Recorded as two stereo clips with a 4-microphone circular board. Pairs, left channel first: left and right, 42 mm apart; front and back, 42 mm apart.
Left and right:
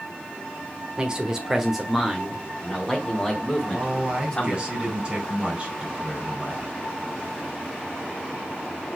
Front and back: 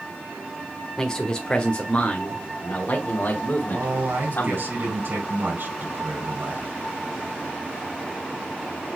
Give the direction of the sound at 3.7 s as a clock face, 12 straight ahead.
5 o'clock.